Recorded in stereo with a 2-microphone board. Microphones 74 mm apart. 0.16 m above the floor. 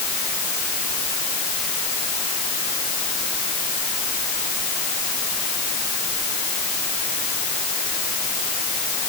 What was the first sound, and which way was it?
Only background noise.